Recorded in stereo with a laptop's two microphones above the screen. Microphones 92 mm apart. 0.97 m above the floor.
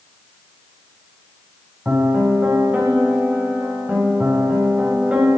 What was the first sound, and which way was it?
A piano, 15° right (ahead or behind).